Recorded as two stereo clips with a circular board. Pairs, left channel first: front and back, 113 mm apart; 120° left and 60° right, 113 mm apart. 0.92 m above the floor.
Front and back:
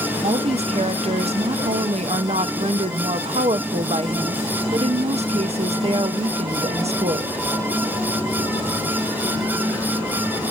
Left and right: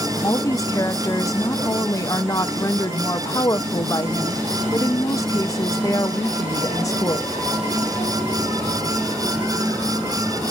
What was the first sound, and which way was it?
A woman speaking, straight behind.